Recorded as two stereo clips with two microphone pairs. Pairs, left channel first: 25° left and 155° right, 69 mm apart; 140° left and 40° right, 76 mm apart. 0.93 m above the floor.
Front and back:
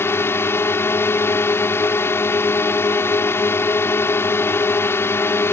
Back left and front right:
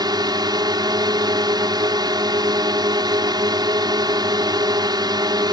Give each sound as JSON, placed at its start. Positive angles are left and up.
{"t": 0.0, "sound": "a drone", "azimuth_deg": -30}